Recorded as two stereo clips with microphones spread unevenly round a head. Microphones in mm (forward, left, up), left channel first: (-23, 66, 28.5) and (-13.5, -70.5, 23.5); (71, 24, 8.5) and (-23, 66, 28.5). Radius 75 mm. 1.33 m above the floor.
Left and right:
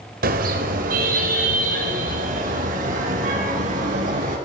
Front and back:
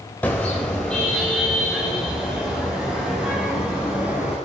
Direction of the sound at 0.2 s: 105° right.